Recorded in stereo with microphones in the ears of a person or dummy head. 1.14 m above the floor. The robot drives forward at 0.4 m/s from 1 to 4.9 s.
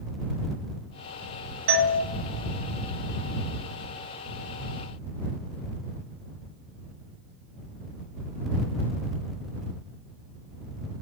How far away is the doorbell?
About 0.9 m.